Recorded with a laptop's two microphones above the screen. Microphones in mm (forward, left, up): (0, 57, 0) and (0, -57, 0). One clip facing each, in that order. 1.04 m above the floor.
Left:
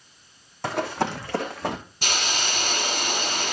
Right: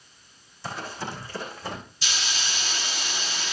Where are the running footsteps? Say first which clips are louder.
Left 8 dB; 65° left (ahead or behind), 2.5 m; by 1.8 s 60° left (ahead or behind), 3 m.